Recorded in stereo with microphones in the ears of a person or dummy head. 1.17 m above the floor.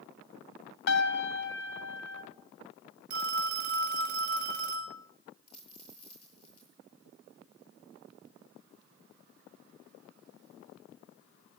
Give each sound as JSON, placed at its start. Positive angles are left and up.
{"t": 0.9, "sound": "a piano", "side_deg": 65, "distance_m": 3.0}
{"t": 3.1, "sound": "a phone ringing", "side_deg": -50, "distance_m": 5.0}
{"t": 5.5, "sound": "a dropped coin", "side_deg": 35, "distance_m": 9.5}